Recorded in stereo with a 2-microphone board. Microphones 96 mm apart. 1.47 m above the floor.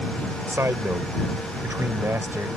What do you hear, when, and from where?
0.5 s a man speaking: 25° right (ahead or behind)